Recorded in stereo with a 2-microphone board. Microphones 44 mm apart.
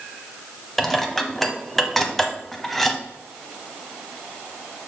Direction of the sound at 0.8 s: 5° left (ahead or behind).